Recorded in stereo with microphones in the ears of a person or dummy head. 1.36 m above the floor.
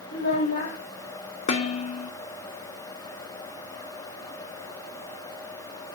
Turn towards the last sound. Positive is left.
turn(degrees=35)  # may be behind; listen again after turning